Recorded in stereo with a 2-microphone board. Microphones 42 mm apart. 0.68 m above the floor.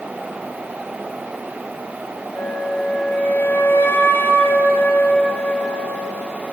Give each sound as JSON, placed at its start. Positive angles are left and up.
{"t": 2.4, "sound": "a flute", "side_deg": 85, "distance_m": 0.8}